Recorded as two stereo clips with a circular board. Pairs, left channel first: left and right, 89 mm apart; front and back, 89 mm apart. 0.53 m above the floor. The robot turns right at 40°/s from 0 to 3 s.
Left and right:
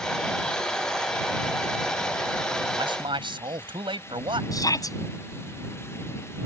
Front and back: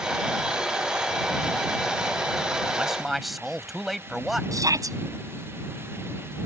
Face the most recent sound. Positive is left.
turn(degrees=135)